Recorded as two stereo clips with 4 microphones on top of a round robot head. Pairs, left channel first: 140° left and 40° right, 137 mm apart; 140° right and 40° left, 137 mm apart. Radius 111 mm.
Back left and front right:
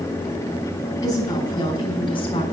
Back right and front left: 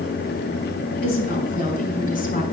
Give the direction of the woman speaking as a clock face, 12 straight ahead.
5 o'clock.